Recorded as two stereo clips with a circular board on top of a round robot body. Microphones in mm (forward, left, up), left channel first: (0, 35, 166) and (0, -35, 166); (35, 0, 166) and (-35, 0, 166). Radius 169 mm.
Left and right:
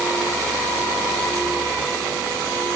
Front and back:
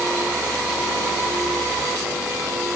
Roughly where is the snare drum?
No snare drum in this recording.